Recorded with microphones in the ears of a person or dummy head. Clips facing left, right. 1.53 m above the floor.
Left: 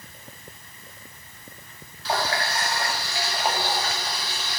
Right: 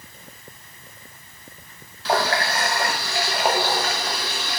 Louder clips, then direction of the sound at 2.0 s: Right 5 dB; 65° right (ahead or behind).